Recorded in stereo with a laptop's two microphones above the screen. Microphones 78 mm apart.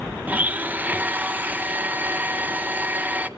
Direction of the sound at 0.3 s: 20° right (ahead or behind).